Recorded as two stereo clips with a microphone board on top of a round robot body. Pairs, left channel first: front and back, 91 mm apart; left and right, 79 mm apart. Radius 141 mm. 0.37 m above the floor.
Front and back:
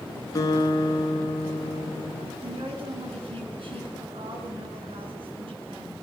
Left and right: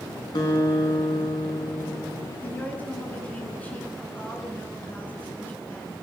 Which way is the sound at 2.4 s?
160° left.